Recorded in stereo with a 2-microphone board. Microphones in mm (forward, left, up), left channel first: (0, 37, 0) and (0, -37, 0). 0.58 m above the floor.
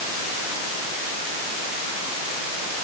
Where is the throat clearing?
No throat clearing in this recording.